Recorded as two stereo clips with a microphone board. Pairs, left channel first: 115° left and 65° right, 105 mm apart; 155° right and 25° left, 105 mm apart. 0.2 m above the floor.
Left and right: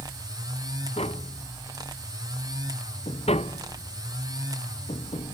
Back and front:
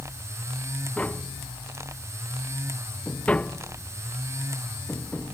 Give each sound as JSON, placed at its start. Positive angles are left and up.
{"t": 1.0, "sound": "tapping", "azimuth_deg": 125}